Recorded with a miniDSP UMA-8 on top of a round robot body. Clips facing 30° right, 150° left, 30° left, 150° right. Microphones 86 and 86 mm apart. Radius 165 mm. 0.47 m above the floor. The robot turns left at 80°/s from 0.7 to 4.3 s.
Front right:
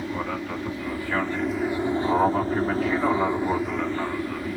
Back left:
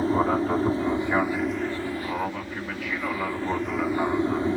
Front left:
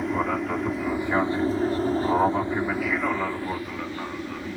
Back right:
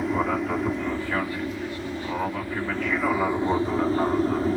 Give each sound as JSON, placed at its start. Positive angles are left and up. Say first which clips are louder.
{"t": 0.0, "sound": "an aircraft", "louder": "back left 7 dB, back right 1 dB", "azimuth_deg": 120}